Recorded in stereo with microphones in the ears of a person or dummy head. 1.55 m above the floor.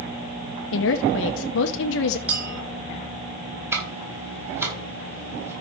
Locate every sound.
0.7 s a woman speaking: 70° left (ahead or behind), 0.8 m
2.3 s a clink: 5° right (ahead or behind), 6.5 m
3.7 s ticking: 10° right (ahead or behind), 4.5 m